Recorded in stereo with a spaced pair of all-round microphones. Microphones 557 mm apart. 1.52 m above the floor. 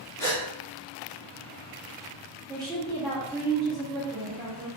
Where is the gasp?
5° left (ahead or behind), 1.2 m.